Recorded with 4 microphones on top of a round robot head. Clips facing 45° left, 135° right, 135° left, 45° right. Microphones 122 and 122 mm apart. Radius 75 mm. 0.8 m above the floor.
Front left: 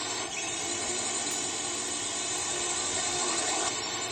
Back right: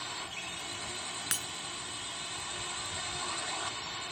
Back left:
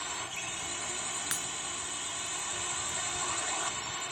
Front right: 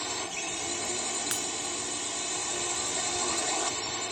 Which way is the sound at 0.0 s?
5° left.